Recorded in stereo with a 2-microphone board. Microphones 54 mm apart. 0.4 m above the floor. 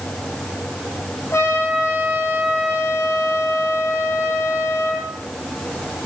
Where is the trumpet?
75° left (ahead or behind), 5 m.